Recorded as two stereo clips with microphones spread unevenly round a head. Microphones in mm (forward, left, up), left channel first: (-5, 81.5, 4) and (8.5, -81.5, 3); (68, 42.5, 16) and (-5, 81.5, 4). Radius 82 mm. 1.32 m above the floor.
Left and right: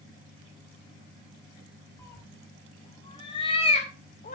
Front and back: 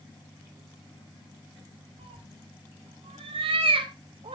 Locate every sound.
2.0 s a cat meowing: 170° left, 2.5 m; by 4.4 s 140° left, 2.0 m